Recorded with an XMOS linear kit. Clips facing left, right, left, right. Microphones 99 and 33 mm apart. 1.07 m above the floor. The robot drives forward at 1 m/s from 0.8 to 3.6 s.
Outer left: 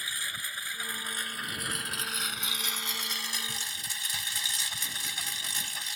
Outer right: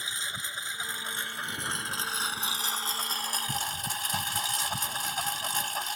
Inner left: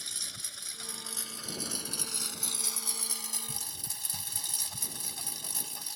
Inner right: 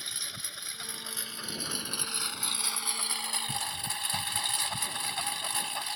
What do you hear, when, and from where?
0.0 s a lawn mower: 25° right (ahead or behind); by 6.0 s 50° right (ahead or behind)